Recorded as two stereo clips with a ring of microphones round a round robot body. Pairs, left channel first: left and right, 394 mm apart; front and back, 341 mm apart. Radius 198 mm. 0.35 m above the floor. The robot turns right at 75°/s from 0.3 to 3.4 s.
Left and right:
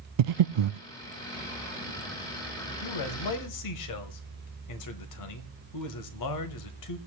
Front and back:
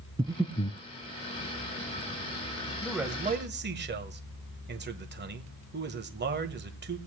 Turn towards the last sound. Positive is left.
turn(degrees=125)